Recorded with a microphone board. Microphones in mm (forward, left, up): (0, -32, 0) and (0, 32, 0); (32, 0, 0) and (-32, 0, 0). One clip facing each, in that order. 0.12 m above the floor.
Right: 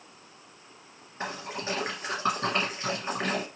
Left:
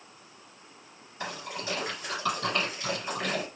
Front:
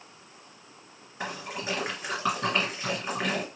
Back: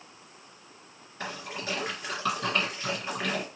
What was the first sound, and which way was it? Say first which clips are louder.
A splash: right 2 dB, front 2 dB; 65° right.